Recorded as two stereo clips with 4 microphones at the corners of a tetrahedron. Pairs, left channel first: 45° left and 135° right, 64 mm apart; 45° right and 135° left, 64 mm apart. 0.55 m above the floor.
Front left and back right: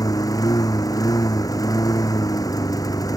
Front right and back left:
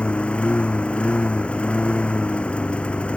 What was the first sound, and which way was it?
A lawn mower, 25° left.